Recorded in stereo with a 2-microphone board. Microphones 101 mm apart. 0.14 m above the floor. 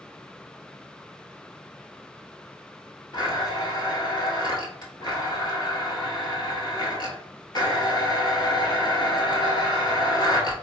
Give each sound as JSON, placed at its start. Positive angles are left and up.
{"t": 3.1, "sound": "a blender", "side_deg": 50, "distance_m": 1.0}